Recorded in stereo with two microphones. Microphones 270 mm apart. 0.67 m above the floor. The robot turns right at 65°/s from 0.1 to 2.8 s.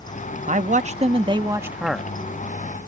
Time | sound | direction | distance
0.5 | a man speaking | 25° right (ahead or behind) | ?